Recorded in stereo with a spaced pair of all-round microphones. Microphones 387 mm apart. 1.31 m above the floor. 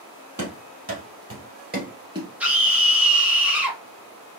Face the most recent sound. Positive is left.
turn(degrees=-5)  # may be behind; listen again after turning